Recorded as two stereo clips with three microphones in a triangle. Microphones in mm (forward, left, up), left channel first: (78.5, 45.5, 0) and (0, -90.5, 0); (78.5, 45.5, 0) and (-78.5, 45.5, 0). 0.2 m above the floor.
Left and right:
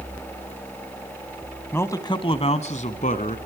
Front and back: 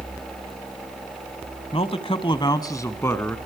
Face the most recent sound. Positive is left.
turn(degrees=75)